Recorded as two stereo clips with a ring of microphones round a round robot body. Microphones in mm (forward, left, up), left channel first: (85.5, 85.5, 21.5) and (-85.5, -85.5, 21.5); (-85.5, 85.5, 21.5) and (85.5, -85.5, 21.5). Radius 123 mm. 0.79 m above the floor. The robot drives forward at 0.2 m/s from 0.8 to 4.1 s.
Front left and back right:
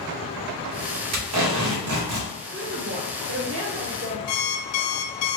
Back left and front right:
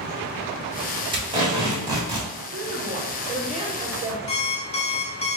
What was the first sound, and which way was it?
Tape being pulled, 115° right.